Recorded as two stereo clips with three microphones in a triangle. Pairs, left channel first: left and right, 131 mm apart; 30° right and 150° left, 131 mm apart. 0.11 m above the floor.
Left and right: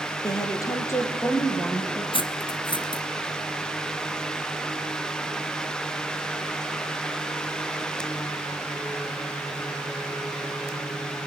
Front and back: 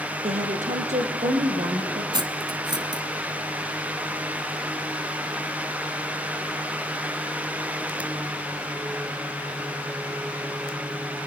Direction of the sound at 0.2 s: 150° left.